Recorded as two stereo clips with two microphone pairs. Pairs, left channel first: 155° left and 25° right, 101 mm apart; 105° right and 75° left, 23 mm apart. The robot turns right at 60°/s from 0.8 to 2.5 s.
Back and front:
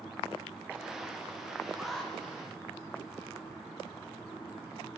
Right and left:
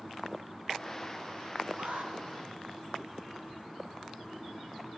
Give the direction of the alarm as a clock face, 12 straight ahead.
10 o'clock.